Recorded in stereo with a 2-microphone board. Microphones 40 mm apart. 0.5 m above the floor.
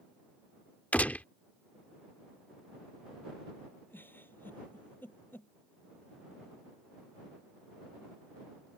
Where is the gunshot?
45° left (ahead or behind).